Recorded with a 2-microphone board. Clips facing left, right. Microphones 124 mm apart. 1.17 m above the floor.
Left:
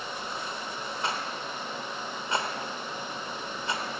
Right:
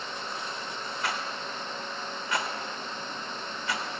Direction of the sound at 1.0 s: 25° left (ahead or behind).